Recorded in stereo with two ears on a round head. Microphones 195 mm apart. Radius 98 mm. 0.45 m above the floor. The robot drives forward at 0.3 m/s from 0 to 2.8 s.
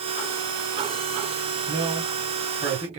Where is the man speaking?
30° right (ahead or behind), 1.6 m.